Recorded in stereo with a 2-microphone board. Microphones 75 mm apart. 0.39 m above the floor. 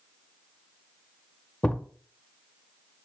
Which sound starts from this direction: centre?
A thud, at 1.6 s.